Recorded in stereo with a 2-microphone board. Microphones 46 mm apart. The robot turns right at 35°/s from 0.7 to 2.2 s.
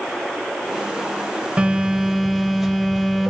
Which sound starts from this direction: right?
A phone buzzing, at 1.6 s.